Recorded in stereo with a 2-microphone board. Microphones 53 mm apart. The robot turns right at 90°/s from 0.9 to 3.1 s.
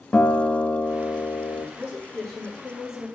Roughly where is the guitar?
Ahead left.